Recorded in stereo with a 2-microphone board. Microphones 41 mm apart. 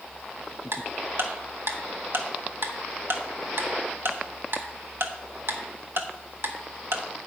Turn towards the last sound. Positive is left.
turn(degrees=-70)  # may be behind; listen again after turning